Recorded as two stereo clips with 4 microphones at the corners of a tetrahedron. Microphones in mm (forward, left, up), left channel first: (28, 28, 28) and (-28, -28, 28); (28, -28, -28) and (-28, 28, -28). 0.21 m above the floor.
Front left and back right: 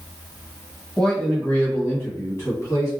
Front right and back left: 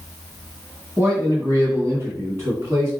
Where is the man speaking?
120° left, 1.3 m; by 2.9 s 90° left, 2.0 m.